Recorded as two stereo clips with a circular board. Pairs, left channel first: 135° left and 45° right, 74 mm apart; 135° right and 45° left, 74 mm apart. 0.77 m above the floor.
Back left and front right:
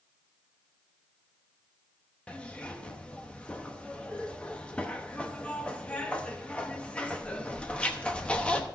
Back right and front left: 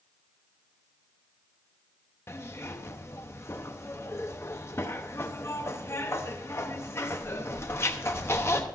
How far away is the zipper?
About 0.9 m.